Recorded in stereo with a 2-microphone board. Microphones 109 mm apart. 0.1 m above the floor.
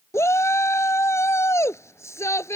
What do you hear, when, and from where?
0.1 s a shout: 25° left (ahead or behind)